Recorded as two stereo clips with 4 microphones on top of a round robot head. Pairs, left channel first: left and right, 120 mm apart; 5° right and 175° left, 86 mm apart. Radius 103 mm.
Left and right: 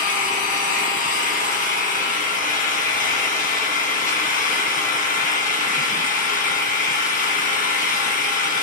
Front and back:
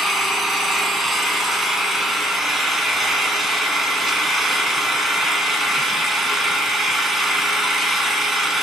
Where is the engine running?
85° left, 2 m.